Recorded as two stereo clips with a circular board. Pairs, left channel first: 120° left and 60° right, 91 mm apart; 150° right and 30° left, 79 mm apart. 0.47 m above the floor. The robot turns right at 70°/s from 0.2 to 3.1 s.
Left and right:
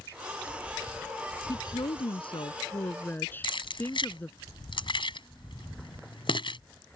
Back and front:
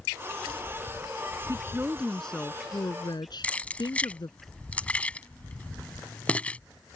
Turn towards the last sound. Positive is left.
turn(degrees=135)